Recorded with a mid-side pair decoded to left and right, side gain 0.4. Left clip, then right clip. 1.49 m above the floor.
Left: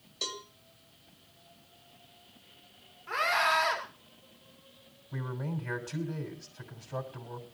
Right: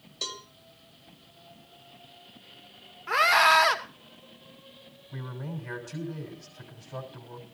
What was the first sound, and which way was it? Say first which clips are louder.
A cowbell: right 1 dB; 10° right.